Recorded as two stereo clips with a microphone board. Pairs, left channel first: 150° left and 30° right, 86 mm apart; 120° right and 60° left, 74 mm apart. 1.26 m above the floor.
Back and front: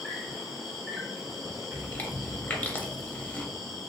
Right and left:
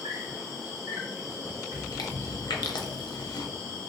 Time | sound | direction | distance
0.0 | an insect | 60° left | 1.7 m
1.7 | chewing | 145° right | 0.5 m